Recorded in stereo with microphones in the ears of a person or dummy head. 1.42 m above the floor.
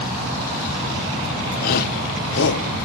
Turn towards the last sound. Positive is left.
turn(degrees=70)  # may be behind; listen again after turning